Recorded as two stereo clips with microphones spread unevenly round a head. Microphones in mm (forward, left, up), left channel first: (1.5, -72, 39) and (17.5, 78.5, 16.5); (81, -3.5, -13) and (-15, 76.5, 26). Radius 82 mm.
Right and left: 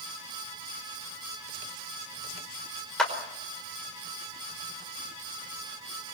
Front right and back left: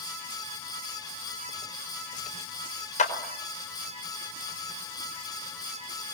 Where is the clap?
10° right, 4.5 m.